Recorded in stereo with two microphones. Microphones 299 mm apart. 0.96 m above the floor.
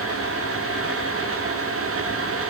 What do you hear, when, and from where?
Only background noise.